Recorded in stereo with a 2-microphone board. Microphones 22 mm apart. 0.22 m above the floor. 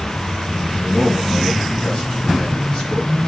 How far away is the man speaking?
About 1.9 m.